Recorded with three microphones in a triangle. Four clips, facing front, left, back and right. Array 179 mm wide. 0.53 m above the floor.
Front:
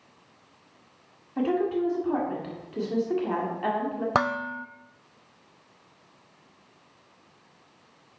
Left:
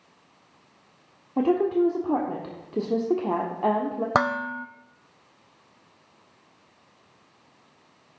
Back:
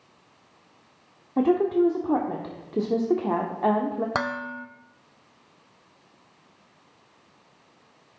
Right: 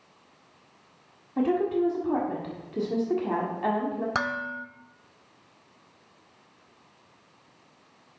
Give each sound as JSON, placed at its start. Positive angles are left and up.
{"t": 1.4, "sound": "a woman speaking", "azimuth_deg": 140, "distance_m": 1.5}
{"t": 4.2, "sound": "dishes clattering", "azimuth_deg": 60, "distance_m": 0.6}